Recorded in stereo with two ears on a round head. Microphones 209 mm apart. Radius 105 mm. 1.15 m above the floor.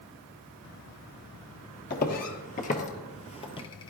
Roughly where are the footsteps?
Left.